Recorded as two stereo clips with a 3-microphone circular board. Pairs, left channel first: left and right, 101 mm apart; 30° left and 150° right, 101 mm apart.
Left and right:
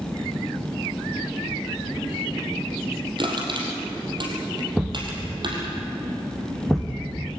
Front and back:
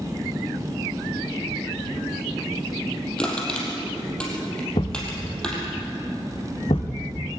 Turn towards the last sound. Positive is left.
turn(degrees=0)